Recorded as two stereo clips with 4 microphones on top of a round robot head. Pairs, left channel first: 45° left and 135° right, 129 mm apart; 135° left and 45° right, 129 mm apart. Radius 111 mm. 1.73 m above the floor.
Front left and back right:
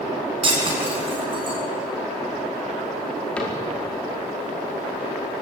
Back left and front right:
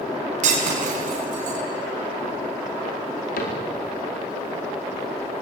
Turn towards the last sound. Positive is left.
turn(degrees=130)